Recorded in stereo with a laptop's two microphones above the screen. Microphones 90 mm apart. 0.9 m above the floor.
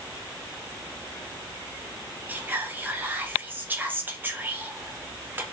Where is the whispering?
20° right (ahead or behind), 0.6 m.